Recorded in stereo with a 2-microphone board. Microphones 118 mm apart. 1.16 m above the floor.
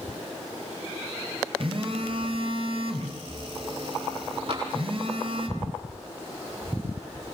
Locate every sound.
1.6 s a phone buzzing: 50° right (ahead or behind), 2.5 m
4.5 s tapping: 55° right (ahead or behind), 7 m